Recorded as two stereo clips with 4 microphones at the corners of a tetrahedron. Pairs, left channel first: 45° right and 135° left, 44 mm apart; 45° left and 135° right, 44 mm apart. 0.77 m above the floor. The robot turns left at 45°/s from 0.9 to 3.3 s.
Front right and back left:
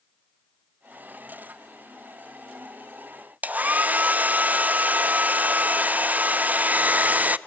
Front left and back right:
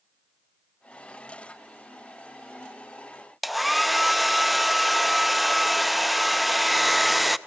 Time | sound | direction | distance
3.4 | a hair dryer | 140° left | 0.5 m